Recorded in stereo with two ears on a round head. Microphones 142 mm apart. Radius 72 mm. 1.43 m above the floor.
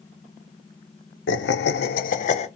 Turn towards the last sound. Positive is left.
turn(degrees=40)  # may be behind; listen again after turning